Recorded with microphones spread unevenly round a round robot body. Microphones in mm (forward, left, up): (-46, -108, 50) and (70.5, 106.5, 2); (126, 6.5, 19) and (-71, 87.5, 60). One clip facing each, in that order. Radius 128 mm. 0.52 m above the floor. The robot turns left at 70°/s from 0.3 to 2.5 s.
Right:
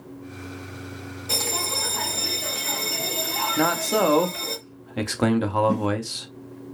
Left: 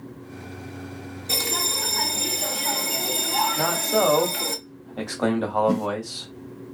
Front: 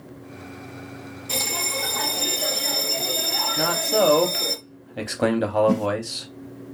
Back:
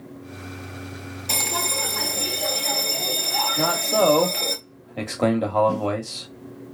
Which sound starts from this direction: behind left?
A bell, at 1.3 s.